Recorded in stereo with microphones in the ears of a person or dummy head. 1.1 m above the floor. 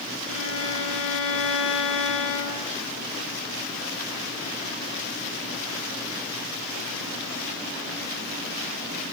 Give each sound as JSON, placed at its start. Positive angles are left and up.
{"t": 0.3, "sound": "a violin", "side_deg": 75, "distance_m": 9.5}